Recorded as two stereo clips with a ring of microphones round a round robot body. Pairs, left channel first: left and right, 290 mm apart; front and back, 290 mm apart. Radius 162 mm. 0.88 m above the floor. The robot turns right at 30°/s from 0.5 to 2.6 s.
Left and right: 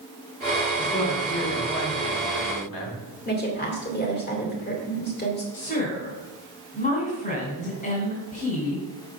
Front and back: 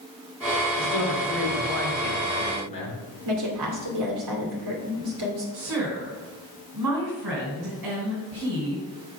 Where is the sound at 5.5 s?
150° left, 3 m.